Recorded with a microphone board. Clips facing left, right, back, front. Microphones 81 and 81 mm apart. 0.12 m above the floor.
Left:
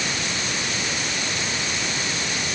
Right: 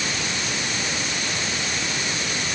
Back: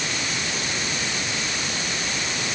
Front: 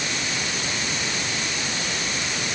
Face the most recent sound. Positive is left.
No sound to turn to.